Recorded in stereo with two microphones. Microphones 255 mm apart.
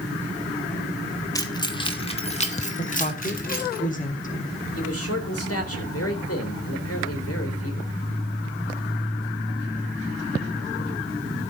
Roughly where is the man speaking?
Left.